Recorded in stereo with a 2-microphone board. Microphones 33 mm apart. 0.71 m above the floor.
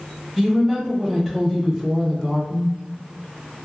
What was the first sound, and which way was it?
A woman speaking, 15° right (ahead or behind).